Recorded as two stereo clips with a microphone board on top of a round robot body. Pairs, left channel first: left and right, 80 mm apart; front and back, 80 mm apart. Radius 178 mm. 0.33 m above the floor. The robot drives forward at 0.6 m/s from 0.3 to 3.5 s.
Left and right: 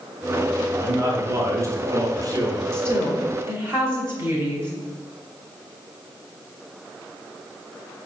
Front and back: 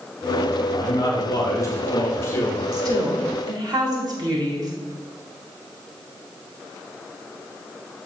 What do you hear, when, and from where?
0.7 s a man speaking: 35° right, 2.5 m; by 2.6 s 60° right, 1.8 m
2.7 s a woman speaking: 145° right, 2.5 m; by 4.7 s 150° right, 2.5 m